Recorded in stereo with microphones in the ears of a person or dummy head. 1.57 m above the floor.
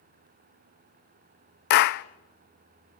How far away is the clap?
About 0.6 m.